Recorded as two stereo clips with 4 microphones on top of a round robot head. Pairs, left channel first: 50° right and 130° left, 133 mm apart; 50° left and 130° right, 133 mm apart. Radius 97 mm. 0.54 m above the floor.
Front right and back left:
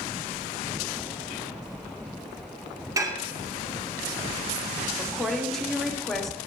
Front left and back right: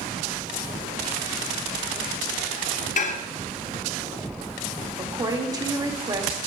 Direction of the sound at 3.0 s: 65° left.